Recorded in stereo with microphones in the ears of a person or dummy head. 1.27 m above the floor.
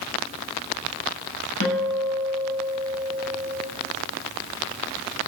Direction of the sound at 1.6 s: 60° left (ahead or behind).